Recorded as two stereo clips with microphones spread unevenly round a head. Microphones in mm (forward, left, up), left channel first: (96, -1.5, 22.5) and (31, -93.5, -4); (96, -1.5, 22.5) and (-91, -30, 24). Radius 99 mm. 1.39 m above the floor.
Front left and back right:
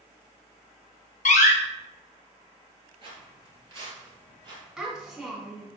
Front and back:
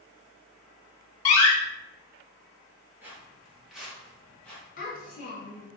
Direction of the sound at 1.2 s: 75° left.